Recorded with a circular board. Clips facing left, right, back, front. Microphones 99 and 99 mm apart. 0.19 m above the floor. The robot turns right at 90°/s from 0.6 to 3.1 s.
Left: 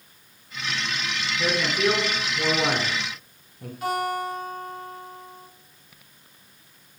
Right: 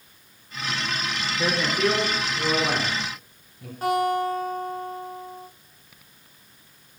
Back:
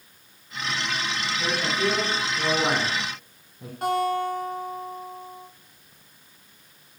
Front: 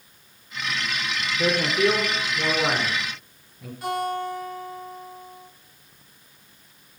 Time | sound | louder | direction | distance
1.4 | a man speaking | even, front 5 dB | 30° right | 1.8 m
3.8 | a guitar | right 4 dB, back 3 dB | 140° right | 5.5 m